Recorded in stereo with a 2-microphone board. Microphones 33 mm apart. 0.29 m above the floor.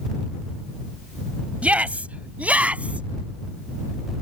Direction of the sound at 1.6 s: 45° right (ahead or behind).